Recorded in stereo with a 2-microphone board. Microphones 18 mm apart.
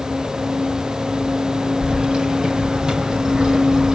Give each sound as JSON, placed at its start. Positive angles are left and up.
{"t": 1.8, "sound": "keys jangling", "side_deg": -50, "distance_m": 2.5}